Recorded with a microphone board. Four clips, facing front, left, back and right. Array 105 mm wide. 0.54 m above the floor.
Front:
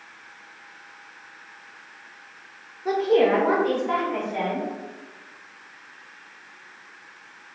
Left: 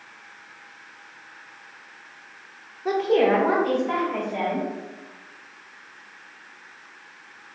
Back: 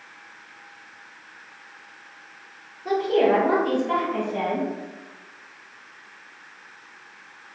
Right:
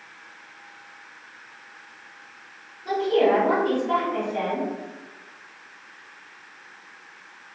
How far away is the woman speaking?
About 1.1 m.